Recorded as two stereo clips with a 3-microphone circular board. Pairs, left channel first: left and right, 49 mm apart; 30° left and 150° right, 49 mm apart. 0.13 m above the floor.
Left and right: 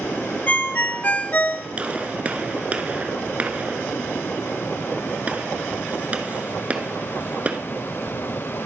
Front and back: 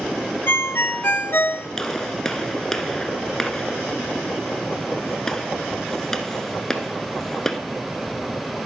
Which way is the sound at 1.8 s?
45° right.